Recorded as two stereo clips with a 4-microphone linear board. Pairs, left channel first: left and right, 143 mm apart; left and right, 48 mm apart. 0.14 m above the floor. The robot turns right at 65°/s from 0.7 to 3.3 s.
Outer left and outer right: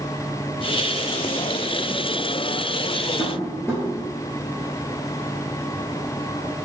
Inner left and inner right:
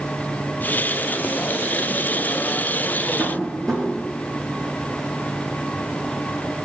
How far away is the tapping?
About 1.1 m.